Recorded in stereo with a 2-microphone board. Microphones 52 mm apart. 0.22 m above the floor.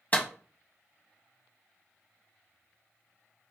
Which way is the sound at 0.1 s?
30° left (ahead or behind).